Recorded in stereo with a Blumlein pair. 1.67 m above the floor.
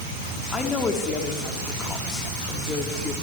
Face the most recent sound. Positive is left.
turn(degrees=15)